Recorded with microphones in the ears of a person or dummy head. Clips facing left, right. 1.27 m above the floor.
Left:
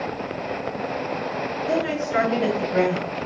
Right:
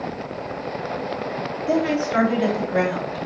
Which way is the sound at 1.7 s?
40° right (ahead or behind).